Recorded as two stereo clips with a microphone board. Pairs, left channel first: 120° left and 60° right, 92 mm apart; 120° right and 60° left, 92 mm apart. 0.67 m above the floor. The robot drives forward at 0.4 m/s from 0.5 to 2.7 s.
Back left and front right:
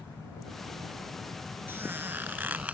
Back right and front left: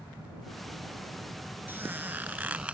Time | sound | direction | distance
1.7 | a squeak | straight ahead | ?